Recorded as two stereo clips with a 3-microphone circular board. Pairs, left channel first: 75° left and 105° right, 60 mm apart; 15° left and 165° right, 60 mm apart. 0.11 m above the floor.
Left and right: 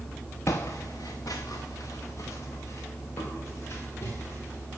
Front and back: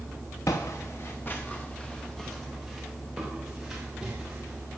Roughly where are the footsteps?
Ahead left.